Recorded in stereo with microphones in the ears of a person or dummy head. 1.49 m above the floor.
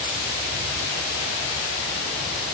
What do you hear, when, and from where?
Only background noise.